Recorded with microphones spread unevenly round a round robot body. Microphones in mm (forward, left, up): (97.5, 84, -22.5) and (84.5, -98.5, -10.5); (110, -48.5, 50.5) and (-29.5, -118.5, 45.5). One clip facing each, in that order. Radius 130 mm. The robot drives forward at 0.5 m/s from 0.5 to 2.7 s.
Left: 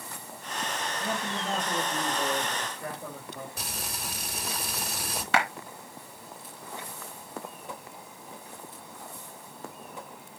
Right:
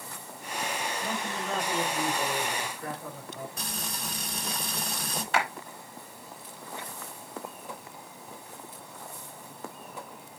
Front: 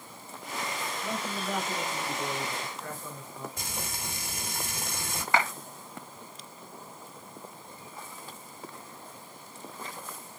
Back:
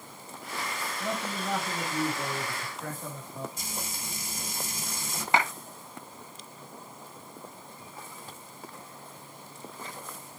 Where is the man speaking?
155° left, 5 m; by 3.5 s 160° left, 6 m.